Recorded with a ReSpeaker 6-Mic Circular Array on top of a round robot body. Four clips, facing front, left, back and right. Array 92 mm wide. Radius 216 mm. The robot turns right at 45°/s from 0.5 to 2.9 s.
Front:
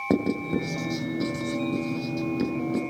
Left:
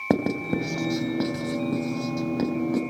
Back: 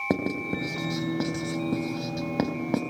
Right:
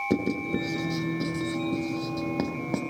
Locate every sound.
0.1 s writing: 100° left, 3.5 m; by 2.8 s 160° right, 3.5 m